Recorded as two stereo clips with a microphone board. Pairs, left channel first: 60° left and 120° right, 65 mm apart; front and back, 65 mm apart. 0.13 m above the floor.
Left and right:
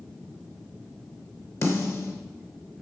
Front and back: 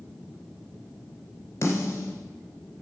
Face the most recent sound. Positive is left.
turn(degrees=35)